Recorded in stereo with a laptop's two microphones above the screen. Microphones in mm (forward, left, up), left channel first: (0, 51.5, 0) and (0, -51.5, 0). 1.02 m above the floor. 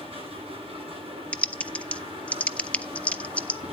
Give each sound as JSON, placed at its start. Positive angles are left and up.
{"t": 0.0, "sound": "a machine running", "side_deg": -70, "distance_m": 7.5}
{"t": 1.3, "sound": "typing on a keyboard", "side_deg": 15, "distance_m": 0.7}